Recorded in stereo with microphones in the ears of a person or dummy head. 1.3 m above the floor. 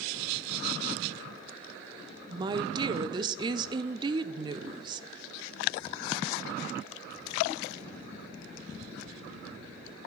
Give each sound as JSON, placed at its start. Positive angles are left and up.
{"t": 2.3, "sound": "a woman speaking", "side_deg": -25, "distance_m": 0.6}